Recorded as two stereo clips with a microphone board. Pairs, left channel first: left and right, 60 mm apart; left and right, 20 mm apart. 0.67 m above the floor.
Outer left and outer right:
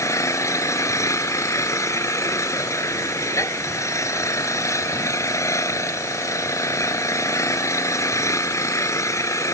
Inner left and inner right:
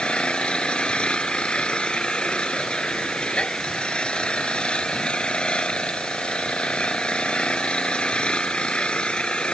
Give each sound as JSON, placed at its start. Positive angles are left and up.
{"t": 0.0, "sound": "an engine running", "side_deg": 60}